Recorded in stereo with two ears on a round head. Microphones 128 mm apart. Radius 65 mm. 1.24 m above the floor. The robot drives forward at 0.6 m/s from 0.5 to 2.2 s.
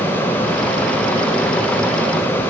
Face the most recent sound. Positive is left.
No sound to turn to.